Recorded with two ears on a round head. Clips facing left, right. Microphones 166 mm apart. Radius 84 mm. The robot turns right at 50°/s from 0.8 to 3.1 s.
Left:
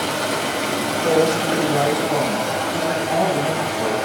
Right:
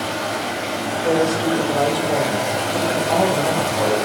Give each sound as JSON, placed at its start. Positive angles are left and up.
{"t": 0.0, "sound": "running water", "azimuth_deg": 115, "distance_m": 4.0}
{"t": 1.0, "sound": "a woman speaking", "azimuth_deg": 170, "distance_m": 5.5}